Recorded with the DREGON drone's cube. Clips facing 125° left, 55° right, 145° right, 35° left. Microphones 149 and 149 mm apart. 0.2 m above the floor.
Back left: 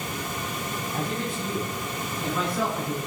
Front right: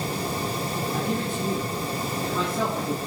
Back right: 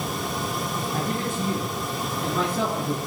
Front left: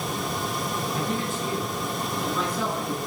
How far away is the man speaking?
About 2.5 m.